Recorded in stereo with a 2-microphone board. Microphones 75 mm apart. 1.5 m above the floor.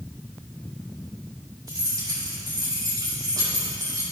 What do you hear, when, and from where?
1.7 s keys jangling: 65° right (ahead or behind), 3.5 m